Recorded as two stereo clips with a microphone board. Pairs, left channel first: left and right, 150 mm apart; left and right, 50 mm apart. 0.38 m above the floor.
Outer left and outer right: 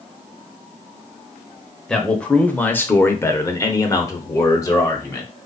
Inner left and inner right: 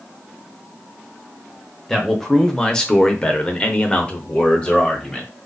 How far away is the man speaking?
About 1.1 m.